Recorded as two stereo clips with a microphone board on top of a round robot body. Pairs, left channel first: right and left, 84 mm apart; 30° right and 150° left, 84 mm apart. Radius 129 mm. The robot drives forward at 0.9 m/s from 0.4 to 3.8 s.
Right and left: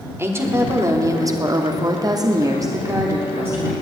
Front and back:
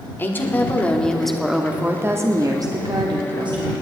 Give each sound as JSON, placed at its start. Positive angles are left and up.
{"t": 0.2, "sound": "a woman speaking", "azimuth_deg": 35, "distance_m": 1.9}